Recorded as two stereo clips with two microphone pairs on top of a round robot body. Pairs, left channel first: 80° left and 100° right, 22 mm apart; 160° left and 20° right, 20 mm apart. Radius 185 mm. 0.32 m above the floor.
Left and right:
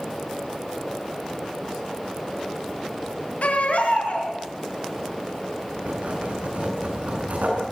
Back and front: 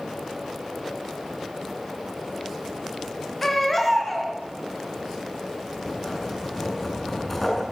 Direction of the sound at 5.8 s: 115° right.